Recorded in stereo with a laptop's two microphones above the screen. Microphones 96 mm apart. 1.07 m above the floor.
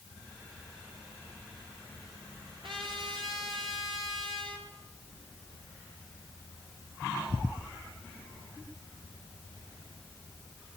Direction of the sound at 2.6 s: 65° right (ahead or behind).